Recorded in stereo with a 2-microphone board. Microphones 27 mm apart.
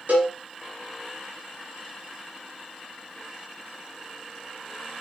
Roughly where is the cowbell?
Right.